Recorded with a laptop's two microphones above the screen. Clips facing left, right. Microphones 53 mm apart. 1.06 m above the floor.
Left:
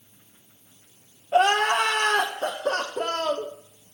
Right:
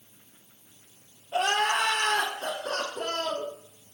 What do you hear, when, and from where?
1.3 s crying: 60° left (ahead or behind), 0.6 m